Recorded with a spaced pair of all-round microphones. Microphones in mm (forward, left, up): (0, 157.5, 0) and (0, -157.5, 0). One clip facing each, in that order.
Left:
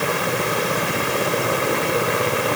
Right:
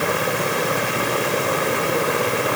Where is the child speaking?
I don't hear a child speaking.